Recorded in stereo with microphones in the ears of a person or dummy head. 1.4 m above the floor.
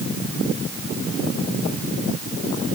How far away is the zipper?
No zipper in this recording.